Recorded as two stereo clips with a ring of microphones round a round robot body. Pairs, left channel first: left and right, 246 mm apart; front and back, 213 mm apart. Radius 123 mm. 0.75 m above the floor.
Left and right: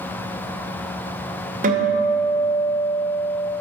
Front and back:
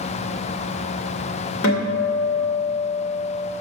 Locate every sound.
1.6 s a guitar: 35° right, 2.5 m